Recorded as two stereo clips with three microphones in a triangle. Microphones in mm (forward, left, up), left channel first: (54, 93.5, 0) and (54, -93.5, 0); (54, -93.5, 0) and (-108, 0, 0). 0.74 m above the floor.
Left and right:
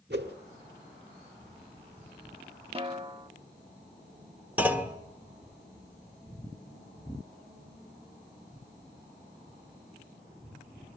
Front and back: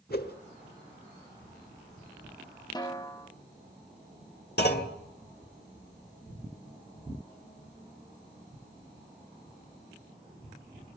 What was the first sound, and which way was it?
A whoosh, 65° right.